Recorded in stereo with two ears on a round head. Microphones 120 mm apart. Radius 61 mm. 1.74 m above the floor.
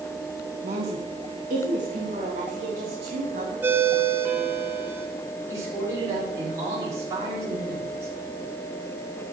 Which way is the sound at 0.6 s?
55° right (ahead or behind).